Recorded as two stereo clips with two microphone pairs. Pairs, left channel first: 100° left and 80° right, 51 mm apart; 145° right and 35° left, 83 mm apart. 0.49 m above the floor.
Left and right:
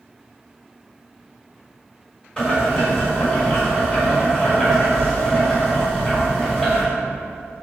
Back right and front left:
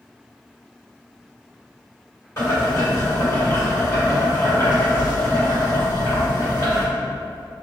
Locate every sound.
2.4 s boiling: 170° left, 1.5 m